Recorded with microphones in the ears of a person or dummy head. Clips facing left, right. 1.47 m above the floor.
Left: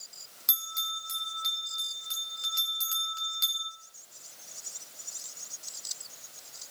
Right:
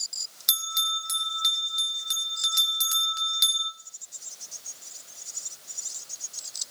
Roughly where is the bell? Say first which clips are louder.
Right 6 dB; centre.